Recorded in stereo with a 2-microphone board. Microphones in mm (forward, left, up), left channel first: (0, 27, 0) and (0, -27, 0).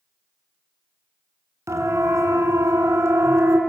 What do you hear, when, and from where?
1.7 s a siren: 70° right (ahead or behind), 3 m; by 3.6 s 65° right (ahead or behind), 3.5 m